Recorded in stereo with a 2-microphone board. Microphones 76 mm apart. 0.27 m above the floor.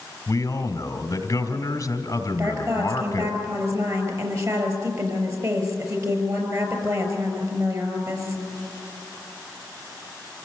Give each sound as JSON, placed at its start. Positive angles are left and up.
{"t": 0.3, "sound": "a man speaking", "side_deg": 50, "distance_m": 2.0}
{"t": 2.4, "sound": "a woman speaking", "side_deg": -50, "distance_m": 5.5}